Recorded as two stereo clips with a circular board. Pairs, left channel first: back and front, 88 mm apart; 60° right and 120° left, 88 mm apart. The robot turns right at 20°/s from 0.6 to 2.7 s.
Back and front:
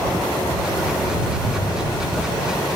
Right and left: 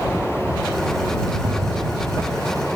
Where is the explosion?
140° left; by 2.7 s 165° left.